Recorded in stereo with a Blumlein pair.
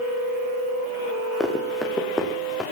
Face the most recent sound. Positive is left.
turn(degrees=10)